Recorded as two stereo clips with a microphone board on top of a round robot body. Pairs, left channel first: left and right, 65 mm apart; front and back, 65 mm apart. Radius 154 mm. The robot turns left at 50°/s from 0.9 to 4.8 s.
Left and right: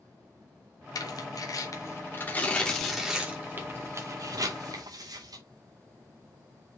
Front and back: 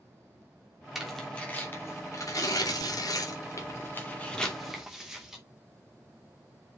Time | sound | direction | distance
0.9 | tearing paper | 95° left | 3 m